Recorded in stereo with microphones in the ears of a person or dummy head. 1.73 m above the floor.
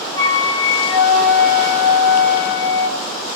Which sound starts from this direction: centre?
A flute, at 0.1 s.